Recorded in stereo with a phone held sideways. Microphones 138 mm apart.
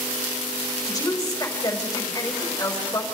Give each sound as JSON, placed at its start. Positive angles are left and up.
{"t": 0.8, "sound": "a woman speaking", "side_deg": 25, "distance_m": 5.5}